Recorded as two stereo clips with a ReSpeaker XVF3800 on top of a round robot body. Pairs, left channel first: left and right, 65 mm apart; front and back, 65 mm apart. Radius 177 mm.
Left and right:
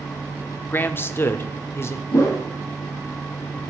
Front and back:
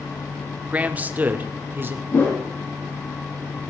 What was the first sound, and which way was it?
A man speaking, 125° left.